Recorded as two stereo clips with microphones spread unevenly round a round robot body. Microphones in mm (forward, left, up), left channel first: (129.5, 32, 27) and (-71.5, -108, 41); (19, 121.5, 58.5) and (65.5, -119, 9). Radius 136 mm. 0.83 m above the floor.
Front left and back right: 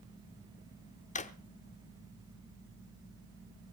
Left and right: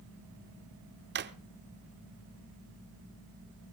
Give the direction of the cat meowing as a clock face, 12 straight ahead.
No cat meowing in this recording.